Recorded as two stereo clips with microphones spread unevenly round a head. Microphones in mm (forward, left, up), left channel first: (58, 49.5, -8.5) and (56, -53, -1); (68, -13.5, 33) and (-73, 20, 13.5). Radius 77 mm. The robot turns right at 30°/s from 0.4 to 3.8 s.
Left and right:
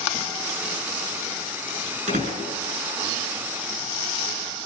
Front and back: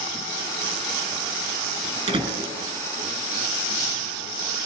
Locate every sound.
2.1 s a door slam: 130° right, 6.5 m; by 2.5 s 120° right, 6.5 m